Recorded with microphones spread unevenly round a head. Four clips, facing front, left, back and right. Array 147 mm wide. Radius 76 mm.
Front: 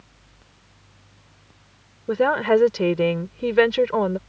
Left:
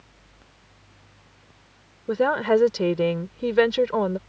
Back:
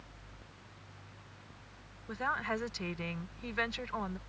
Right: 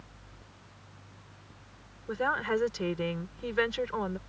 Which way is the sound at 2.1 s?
35° left.